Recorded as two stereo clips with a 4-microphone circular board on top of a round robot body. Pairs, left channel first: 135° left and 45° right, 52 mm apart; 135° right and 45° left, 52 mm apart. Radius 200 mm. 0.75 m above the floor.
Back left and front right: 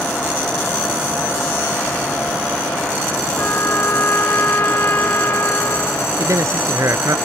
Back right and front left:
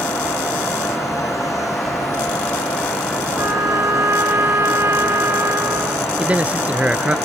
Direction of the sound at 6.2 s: 20° right.